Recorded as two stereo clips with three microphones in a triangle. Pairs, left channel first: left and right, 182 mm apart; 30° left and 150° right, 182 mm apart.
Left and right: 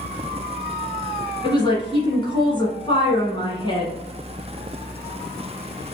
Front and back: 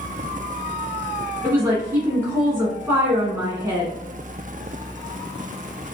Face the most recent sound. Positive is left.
turn(degrees=140)